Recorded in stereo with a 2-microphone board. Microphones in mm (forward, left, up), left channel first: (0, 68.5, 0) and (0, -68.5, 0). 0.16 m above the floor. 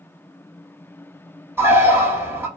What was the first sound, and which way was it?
A bird, 20° right (ahead or behind).